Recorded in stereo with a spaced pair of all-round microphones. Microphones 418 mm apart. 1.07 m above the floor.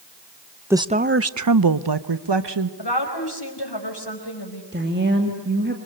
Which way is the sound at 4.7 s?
25° right (ahead or behind).